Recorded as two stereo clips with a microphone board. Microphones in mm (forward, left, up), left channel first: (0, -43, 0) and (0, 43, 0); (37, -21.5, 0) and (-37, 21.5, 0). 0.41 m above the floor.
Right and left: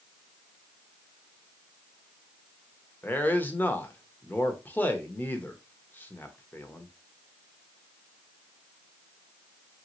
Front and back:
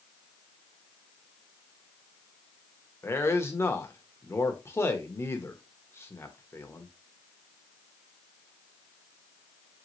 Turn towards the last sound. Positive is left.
turn(degrees=-45)